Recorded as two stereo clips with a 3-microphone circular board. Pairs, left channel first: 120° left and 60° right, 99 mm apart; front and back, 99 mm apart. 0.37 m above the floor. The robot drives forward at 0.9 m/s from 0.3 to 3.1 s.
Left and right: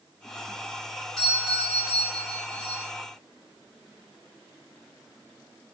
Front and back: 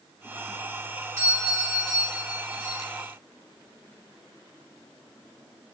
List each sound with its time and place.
1.2 s a doorbell: 160° right, 1.8 m; by 2.9 s 175° right, 3 m